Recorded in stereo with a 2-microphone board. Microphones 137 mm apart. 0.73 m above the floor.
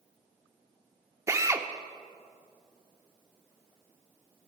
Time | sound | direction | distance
1.3 | a drill | 20° right (ahead or behind) | 0.5 m